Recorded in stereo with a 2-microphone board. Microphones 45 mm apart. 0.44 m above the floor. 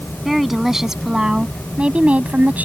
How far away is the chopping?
I don't hear chopping.